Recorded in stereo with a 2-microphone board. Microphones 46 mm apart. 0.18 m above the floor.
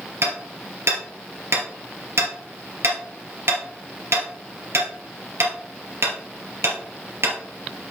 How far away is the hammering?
About 2.5 m.